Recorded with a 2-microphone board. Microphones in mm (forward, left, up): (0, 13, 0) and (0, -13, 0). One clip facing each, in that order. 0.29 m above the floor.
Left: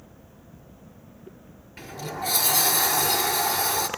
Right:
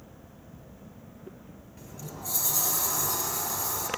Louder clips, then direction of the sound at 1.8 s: Left 10 dB; 75° left (ahead or behind).